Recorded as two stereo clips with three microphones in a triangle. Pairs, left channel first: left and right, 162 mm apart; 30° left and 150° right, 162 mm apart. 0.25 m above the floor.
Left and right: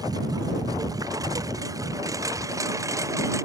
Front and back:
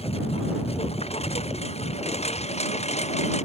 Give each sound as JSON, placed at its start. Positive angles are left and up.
{"t": 0.0, "sound": "a lawn mower", "azimuth_deg": -20}